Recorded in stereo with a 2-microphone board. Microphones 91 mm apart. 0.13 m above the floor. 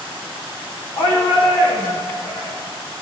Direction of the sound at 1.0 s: 60° left (ahead or behind).